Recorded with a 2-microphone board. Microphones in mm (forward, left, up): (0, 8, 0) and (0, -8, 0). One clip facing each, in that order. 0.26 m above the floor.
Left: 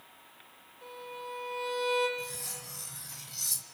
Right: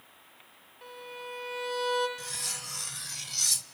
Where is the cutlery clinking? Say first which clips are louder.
Right 4 dB; 40° right (ahead or behind), 0.6 m.